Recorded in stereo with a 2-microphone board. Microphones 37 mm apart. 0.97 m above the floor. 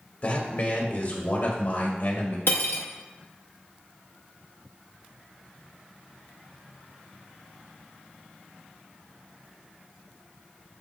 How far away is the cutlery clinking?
About 0.6 m.